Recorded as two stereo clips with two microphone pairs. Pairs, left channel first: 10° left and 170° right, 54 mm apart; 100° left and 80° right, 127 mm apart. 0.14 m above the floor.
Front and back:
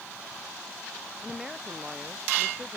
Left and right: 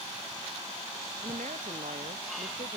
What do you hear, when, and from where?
1.2 s a woman speaking: 90° right; by 2.8 s 85° right